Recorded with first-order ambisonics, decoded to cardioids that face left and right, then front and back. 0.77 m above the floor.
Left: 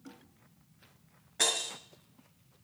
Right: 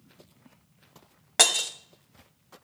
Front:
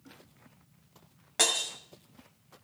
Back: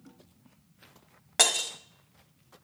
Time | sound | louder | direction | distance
1.4 | breaking glass | right 8 dB, back 3 dB | 110° right | 1.5 m